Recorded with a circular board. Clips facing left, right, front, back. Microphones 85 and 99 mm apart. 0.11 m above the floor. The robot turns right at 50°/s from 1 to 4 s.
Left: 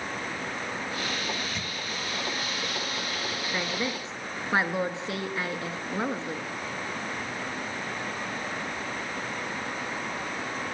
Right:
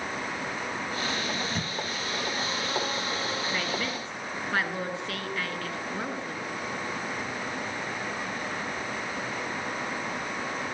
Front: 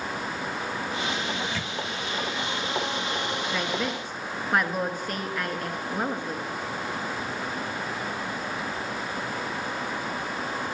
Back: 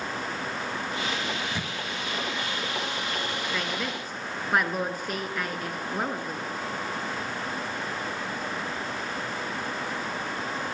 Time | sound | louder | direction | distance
1.3 | a microwave | right 2 dB, front 1 dB | 125° right | 1.6 m
3.5 | a woman speaking | even, front 3 dB | 70° left | 1.2 m